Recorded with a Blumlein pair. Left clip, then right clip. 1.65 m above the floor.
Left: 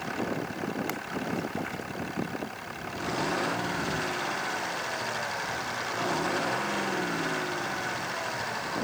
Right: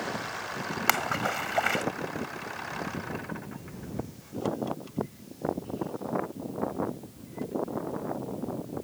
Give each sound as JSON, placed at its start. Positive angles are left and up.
{"t": 0.9, "sound": "a splash", "azimuth_deg": -55}